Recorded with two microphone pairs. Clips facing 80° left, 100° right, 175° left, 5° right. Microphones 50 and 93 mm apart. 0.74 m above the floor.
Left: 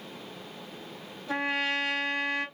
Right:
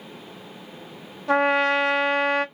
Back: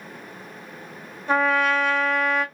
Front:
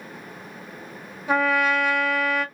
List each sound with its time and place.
1.3 s a trumpet: 85° right, 1.2 m